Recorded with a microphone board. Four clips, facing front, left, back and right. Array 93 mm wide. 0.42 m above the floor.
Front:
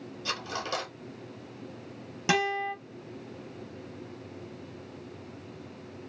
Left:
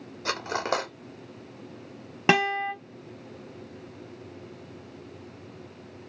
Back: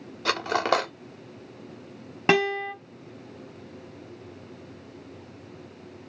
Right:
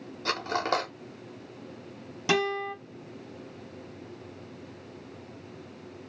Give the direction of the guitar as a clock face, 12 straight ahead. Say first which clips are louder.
Left 4 dB, back 5 dB; 8 o'clock.